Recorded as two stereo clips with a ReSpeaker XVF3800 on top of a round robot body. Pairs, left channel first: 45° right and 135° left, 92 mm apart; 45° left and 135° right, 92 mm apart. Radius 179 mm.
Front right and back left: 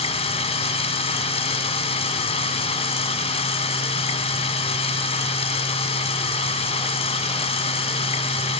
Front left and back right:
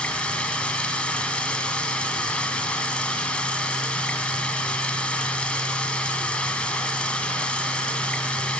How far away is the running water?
About 2.5 m.